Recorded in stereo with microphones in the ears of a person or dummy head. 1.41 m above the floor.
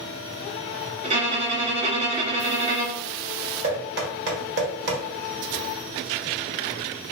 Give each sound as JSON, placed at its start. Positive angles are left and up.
{"t": 1.0, "sound": "a violin", "side_deg": -35, "distance_m": 1.0}
{"t": 3.6, "sound": "knocking", "side_deg": -60, "distance_m": 1.6}